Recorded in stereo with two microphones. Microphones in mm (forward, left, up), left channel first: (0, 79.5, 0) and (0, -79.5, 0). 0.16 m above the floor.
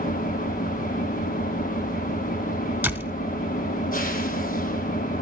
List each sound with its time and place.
0.0 s an engine running: 60° left (ahead or behind), 2.5 m
2.8 s a door slam: 10° right (ahead or behind), 1.1 m